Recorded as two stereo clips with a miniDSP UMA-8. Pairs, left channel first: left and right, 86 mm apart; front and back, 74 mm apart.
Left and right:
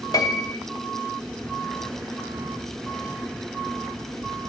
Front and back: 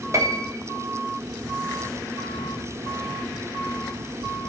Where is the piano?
135° left, 0.7 m.